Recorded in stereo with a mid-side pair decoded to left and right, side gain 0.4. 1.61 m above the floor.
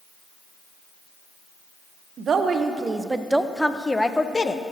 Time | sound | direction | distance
2.2 | a woman speaking | 60° right | 1.1 m